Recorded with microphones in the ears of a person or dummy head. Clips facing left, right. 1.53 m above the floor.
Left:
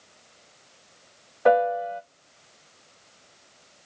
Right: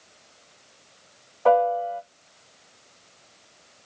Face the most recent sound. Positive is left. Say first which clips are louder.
# right 1 dB
turn(degrees=25)  # may be behind; listen again after turning